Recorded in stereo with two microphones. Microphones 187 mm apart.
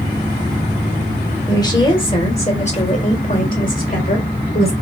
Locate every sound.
1.5 s a woman speaking: 20° left (ahead or behind), 1.6 m; by 4.7 s 60° left (ahead or behind), 2.5 m